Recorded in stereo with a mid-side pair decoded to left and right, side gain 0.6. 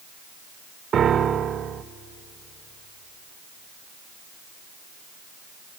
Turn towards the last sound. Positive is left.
turn(degrees=-40)